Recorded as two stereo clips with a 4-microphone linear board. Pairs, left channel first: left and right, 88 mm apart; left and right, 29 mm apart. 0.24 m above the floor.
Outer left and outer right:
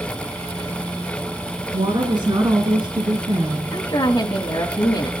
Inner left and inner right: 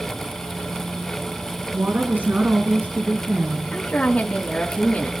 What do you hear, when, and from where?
1.7 s a woman speaking: 65° right (ahead or behind), 2.5 m; by 3.8 s 40° right (ahead or behind), 3.5 m
3.7 s a woman speaking: 45° left (ahead or behind), 2 m